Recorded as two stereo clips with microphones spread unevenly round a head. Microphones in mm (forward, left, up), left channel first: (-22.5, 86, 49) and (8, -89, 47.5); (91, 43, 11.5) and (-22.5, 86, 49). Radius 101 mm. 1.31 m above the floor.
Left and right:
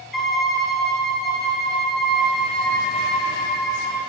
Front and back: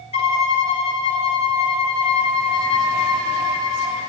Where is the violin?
15° left, 1.1 m.